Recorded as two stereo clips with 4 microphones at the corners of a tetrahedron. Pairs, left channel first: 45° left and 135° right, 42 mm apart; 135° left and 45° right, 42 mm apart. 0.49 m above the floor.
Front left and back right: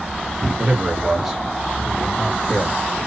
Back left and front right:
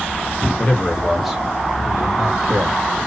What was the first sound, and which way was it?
A man speaking, straight behind.